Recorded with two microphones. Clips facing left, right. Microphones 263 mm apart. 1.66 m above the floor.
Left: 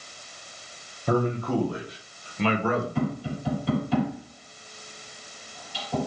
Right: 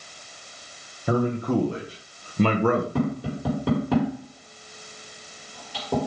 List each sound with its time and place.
1.1 s a man speaking: 5° right (ahead or behind), 1.4 m; by 2.9 s 60° right (ahead or behind), 1.4 m
3.0 s tapping: 70° right (ahead or behind), 4 m